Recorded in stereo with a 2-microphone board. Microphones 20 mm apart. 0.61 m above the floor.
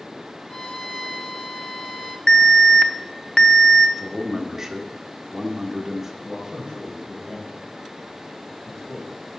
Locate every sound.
0.5 s a violin: 30° left (ahead or behind), 0.9 m
2.3 s an alarm: 50° left (ahead or behind), 0.7 m
4.0 s a man speaking: 20° right (ahead or behind), 1.0 m
6.2 s a man speaking: 75° left (ahead or behind), 2.5 m